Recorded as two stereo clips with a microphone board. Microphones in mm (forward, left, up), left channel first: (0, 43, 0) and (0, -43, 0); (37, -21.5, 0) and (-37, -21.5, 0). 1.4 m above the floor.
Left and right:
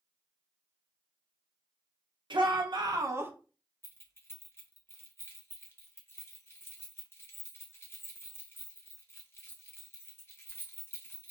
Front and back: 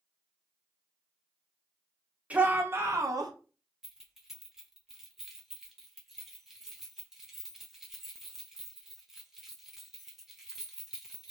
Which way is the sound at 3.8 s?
100° left.